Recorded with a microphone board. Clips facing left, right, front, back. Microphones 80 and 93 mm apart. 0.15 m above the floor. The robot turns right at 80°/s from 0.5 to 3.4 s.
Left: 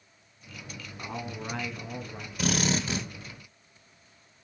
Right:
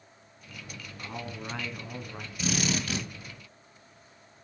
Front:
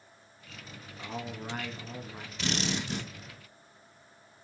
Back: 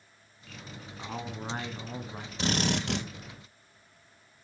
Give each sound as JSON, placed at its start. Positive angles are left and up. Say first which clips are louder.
{"t": 1.0, "sound": "a man speaking", "louder": "left 2 dB, back 1 dB", "azimuth_deg": 135, "distance_m": 1.1}
{"t": 2.4, "sound": "a drill", "louder": "left 2 dB, back 4 dB", "azimuth_deg": 120, "distance_m": 1.7}